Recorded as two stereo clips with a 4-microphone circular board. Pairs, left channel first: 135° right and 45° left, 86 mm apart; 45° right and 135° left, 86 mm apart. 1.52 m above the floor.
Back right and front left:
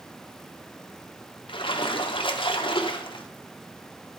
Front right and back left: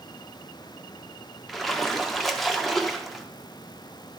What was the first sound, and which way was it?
A splash, 135° right.